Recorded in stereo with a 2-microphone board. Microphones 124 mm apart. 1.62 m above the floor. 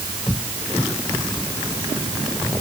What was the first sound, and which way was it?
Only background noise.